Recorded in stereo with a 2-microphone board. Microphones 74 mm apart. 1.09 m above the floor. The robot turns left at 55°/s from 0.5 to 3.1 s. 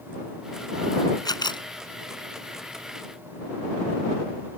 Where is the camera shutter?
60° left (ahead or behind); by 1.7 s 85° left.